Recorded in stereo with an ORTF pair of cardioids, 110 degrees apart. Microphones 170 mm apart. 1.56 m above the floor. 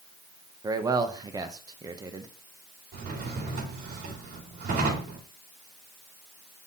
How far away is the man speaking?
About 0.9 m.